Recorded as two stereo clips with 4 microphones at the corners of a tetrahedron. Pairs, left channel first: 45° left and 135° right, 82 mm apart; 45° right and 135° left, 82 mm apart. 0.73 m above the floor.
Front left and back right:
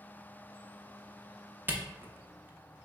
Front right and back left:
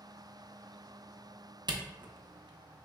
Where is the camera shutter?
160° left, 0.6 m.